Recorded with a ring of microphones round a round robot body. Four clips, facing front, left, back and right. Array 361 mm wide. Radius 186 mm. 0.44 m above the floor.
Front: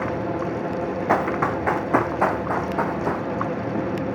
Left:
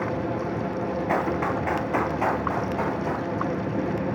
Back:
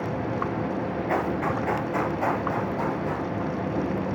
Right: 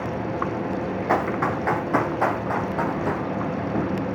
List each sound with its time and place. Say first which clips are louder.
1.1 s running footsteps: right 3 dB, front 5 dB; 20° right, 5 m; by 3.2 s 10° right, 6.5 m